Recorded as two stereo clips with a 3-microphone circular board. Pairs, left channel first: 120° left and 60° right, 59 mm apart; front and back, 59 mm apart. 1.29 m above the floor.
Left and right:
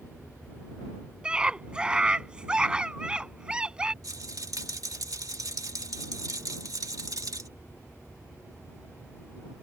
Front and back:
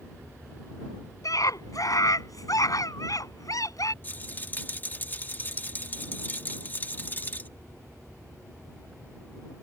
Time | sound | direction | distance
1.2 | a scream | 15° left | ?
4.0 | a rattle | 60° right | ?